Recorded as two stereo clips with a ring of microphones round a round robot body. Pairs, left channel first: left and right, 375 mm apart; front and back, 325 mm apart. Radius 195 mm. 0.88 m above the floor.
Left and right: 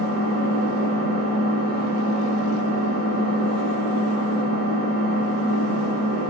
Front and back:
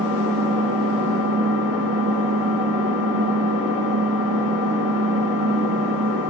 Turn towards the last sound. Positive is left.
turn(degrees=-40)